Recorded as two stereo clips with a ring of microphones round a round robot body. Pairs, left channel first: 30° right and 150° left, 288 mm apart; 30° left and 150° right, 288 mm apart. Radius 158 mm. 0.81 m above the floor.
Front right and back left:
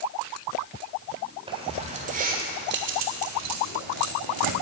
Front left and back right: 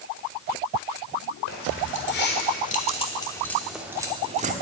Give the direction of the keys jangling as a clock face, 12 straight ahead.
9 o'clock.